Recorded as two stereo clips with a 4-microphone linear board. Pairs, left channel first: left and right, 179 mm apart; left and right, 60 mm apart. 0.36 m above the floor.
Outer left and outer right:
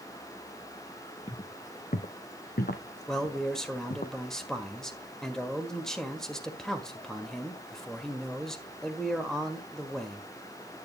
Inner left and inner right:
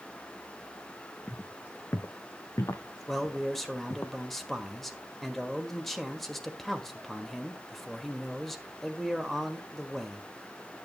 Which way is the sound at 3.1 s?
5° left (ahead or behind).